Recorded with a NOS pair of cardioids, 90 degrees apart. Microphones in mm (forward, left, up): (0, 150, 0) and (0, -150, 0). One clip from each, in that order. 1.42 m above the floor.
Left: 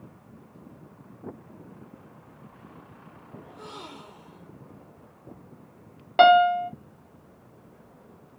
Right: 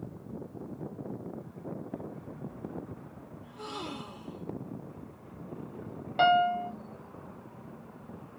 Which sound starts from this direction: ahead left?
A piano, at 6.2 s.